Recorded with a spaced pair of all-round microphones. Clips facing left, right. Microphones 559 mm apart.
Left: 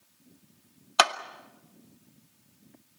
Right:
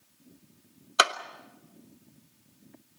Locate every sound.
1.0 s a clap: 20° left (ahead or behind), 0.9 m